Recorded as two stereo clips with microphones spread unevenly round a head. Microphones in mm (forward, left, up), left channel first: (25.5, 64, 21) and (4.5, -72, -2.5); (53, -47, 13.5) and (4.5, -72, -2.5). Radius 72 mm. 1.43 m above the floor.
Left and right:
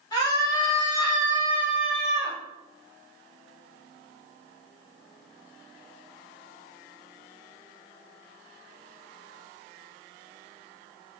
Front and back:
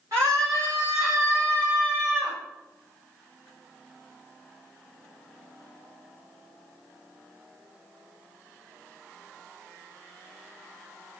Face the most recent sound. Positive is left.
turn(degrees=135)